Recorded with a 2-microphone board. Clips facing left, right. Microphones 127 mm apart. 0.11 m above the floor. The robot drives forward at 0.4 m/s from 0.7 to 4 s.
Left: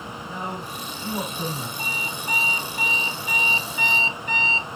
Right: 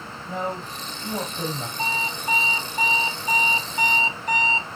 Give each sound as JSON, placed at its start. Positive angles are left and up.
{"t": 0.3, "sound": "a man speaking", "side_deg": -30, "distance_m": 3.5}
{"t": 1.8, "sound": "an alarm clock", "side_deg": -25, "distance_m": 1.4}